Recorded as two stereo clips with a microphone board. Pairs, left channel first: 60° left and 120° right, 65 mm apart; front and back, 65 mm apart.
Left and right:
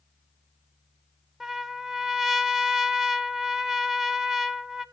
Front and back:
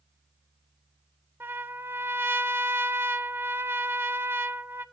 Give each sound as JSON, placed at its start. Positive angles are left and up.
{"t": 1.4, "sound": "a trumpet", "azimuth_deg": 160, "distance_m": 0.5}